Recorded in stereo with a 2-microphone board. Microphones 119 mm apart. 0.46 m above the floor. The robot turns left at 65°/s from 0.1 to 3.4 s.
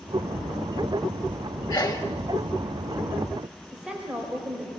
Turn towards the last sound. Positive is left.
turn(degrees=-10)  # may be behind; listen again after turning